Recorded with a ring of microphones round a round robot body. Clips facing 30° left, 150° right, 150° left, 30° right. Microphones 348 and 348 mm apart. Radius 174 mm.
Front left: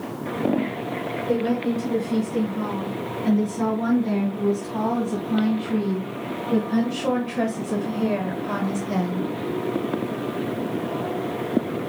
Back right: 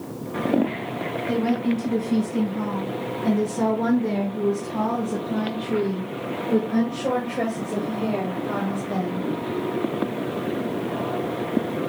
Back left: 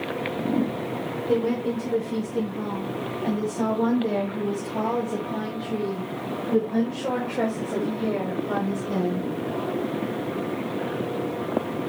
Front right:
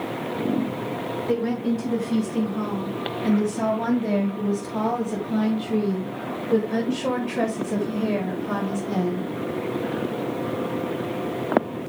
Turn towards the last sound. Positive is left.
turn(degrees=45)